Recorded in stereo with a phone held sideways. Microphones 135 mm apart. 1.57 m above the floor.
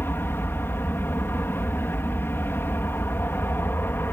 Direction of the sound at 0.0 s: 15° left (ahead or behind).